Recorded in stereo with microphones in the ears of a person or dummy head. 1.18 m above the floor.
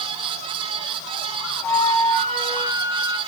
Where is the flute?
10° left (ahead or behind), 1.9 m.